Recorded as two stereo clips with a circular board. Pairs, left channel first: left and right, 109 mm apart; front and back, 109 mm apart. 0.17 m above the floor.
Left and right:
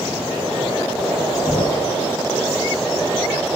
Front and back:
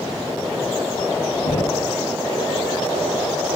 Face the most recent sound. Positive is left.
turn(degrees=15)